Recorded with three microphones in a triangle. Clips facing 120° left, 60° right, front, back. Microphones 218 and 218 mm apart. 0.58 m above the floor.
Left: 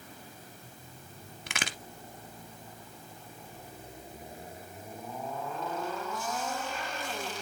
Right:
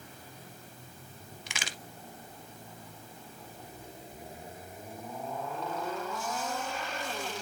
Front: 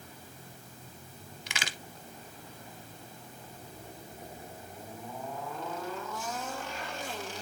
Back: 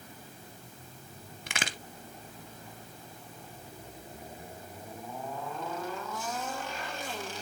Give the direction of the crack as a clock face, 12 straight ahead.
7 o'clock.